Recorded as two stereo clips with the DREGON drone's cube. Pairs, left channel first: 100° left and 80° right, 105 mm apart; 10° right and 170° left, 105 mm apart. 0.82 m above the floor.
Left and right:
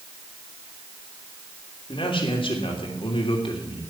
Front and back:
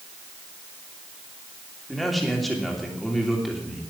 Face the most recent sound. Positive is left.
turn(degrees=80)